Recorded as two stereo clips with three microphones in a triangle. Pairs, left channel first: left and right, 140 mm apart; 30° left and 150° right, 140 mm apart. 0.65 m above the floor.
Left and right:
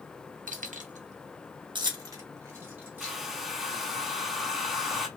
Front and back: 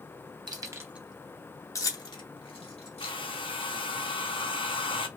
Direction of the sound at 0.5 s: 90° right.